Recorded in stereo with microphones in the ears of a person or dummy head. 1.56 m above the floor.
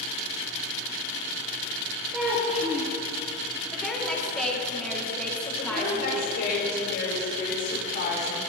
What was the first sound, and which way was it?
A child speaking, 5° right (ahead or behind).